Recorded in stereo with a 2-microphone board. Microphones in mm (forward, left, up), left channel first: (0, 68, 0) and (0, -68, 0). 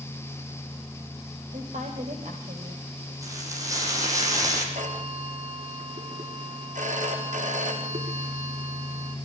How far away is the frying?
About 7.5 m.